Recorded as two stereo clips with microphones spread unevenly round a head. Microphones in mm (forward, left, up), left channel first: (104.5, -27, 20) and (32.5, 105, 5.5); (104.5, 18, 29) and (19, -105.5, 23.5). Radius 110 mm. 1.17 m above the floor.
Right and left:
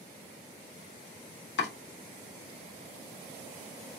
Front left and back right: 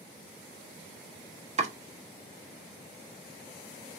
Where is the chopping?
80° right, 1.3 m.